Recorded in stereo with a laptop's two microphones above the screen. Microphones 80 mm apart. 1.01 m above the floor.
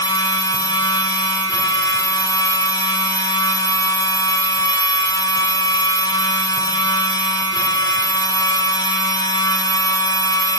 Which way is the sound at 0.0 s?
60° left (ahead or behind).